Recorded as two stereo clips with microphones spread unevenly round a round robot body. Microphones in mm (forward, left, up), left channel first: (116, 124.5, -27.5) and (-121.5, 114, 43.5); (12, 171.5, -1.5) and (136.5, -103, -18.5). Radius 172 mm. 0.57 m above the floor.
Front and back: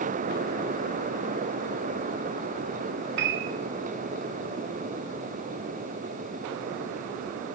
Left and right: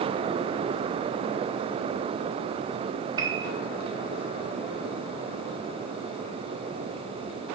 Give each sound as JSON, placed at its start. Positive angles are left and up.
{"t": 3.2, "sound": "a piano", "azimuth_deg": -130, "distance_m": 1.1}